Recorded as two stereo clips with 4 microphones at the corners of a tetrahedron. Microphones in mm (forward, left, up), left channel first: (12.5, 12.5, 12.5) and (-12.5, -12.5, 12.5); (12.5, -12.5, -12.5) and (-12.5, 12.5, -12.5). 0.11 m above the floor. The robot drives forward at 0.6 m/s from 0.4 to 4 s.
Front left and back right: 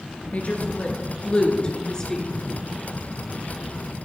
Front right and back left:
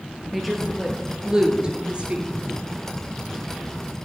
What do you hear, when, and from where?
0.3 s a woman speaking: 50° left, 1.6 m; by 2.3 s 110° left, 1.4 m